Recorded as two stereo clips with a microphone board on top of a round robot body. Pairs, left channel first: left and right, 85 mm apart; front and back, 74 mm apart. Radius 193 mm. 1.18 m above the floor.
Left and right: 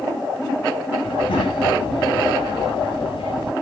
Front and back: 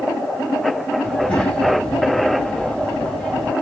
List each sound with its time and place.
1.0 s a child speaking: 80° left, 1.7 m